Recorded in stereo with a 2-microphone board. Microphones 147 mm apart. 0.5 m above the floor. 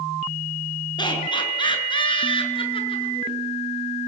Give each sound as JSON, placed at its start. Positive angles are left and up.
{"t": 1.0, "sound": "laughter", "side_deg": 35, "distance_m": 7.5}